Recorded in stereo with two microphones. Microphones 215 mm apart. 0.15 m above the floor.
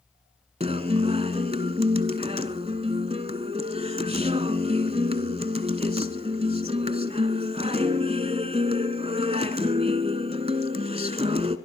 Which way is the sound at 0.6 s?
30° right (ahead or behind).